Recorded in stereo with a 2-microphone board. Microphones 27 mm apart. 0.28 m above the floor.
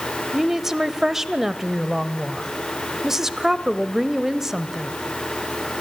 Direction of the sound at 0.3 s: 15° right (ahead or behind).